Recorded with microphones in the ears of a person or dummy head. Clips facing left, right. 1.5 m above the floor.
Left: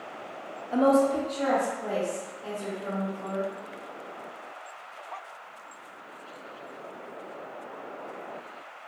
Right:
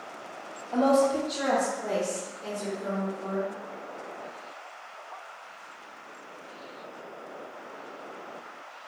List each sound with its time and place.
0.7 s a woman speaking: 20° left (ahead or behind), 0.6 m; by 3.5 s 45° right (ahead or behind), 2.5 m